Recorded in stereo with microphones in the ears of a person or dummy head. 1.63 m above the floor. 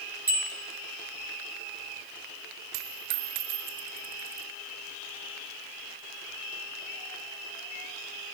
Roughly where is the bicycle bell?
Centre.